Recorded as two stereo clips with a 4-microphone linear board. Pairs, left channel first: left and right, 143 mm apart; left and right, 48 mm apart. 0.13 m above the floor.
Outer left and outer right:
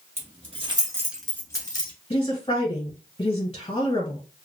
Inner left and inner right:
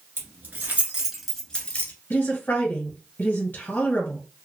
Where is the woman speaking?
40° left (ahead or behind), 1.4 m.